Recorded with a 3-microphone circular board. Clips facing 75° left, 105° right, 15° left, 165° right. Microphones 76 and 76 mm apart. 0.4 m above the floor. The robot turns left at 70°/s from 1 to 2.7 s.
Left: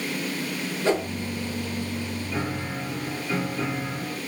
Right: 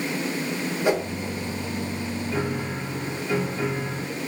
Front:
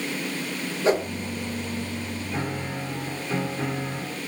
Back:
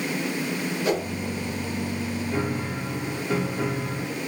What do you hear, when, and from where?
0.8 s a whoosh: 35° right, 0.7 m; by 1.1 s 40° right, 0.7 m
2.3 s a piano: 135° right, 1.9 m; by 4.2 s 160° right, 1.9 m